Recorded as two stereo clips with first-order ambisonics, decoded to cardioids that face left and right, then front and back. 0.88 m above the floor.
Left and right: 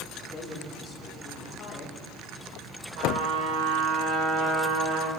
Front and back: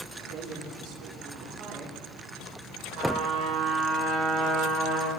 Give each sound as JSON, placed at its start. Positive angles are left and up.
{"t": 0.2, "sound": "a woman speaking", "azimuth_deg": 175, "distance_m": 2.5}
{"t": 3.0, "sound": "a trumpet", "azimuth_deg": -130, "distance_m": 4.0}